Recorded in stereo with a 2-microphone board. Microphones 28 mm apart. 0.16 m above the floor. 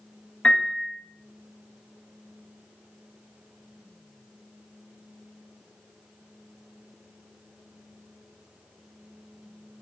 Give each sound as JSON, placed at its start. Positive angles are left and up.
{"t": 0.4, "sound": "a piano", "side_deg": 55, "distance_m": 1.2}